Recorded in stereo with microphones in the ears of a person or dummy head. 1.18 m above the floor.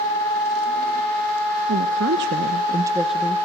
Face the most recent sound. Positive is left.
turn(degrees=15)  # may be behind; listen again after turning